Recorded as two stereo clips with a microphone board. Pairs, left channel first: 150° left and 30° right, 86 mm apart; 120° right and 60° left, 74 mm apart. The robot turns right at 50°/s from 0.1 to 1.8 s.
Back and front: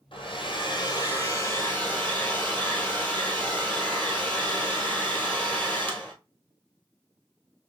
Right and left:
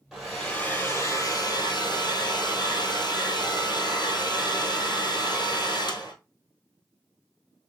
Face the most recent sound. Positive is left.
turn(degrees=-135)